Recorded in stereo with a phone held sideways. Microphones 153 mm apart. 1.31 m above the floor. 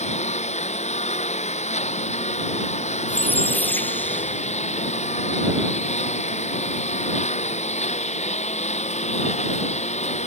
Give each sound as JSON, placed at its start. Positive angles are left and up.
{"t": 0.0, "sound": "a lawn mower", "side_deg": 45}
{"t": 3.1, "sound": "a squeak", "side_deg": 10}